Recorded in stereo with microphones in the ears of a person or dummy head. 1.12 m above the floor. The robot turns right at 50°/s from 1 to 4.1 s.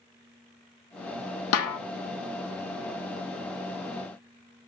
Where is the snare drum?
70° left (ahead or behind), 1.1 m; by 1.8 s 75° left (ahead or behind), 1.1 m.